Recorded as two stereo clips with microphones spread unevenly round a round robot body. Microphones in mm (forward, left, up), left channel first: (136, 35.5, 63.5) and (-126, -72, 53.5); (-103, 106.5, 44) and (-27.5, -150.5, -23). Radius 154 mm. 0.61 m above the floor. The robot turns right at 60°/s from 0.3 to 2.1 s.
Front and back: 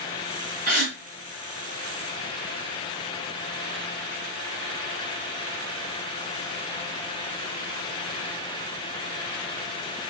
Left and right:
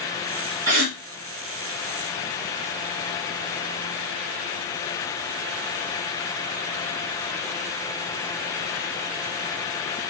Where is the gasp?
100° right, 2.5 m; by 1.0 s 85° right, 2.5 m.